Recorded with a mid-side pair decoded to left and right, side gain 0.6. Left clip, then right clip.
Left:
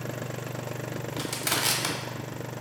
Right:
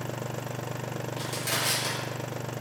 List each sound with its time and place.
1.2 s crushing: 45° left, 0.8 m